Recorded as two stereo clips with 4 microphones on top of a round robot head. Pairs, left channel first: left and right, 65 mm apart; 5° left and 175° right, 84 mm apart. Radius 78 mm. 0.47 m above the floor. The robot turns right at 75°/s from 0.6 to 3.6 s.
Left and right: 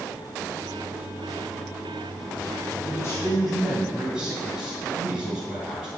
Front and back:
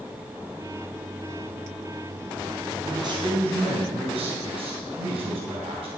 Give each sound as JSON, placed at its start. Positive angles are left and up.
{"t": 2.8, "sound": "a man speaking", "azimuth_deg": 130, "distance_m": 3.5}